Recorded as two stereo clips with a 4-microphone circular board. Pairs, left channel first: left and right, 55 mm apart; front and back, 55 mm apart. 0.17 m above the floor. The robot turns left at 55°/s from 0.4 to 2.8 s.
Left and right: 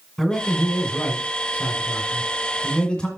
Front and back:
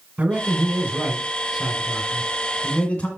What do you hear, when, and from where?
0.2 s a man speaking: 170° left, 1.7 m; by 3.1 s 40° left, 1.7 m